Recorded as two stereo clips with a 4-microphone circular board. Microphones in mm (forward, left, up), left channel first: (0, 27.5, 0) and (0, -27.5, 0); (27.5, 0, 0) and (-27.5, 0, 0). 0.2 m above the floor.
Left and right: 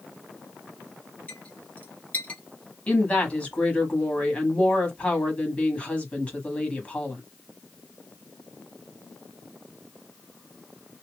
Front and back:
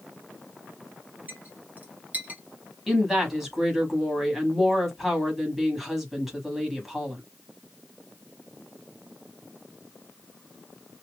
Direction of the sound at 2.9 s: 100° left.